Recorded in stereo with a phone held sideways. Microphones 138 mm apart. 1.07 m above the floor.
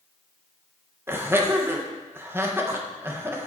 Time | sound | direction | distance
1.1 | laughter | 15° right (ahead or behind) | 1.1 m